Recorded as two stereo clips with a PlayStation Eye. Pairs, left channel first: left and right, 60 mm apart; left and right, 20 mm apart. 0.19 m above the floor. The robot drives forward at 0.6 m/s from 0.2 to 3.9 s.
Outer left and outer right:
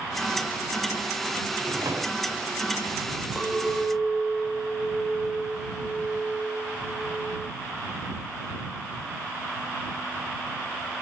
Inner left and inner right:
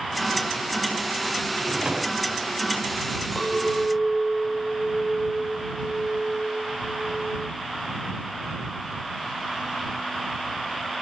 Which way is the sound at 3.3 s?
10° right (ahead or behind).